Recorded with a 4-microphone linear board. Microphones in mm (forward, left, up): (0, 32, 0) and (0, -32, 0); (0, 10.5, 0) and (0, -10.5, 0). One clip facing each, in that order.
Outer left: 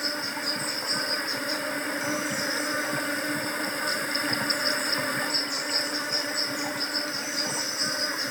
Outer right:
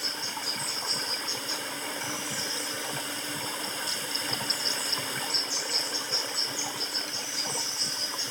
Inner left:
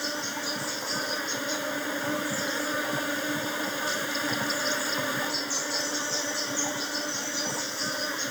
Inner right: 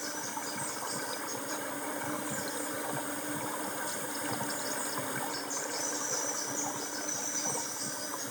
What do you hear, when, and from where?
0.0 s an insect: 45° left (ahead or behind)